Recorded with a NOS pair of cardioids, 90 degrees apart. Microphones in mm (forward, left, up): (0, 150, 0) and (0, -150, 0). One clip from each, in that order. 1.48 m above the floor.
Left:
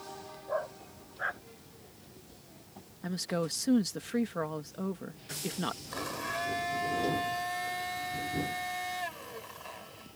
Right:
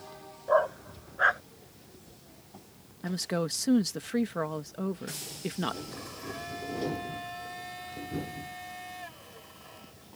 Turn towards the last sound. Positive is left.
turn(degrees=55)